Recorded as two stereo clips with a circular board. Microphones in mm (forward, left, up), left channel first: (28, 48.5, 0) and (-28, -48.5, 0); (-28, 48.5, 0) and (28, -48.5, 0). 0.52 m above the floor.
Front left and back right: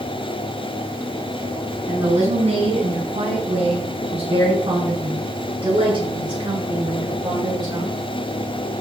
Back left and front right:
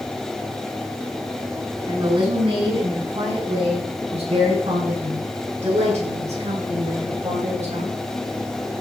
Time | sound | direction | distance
1.9 | a woman speaking | 105° right | 5 m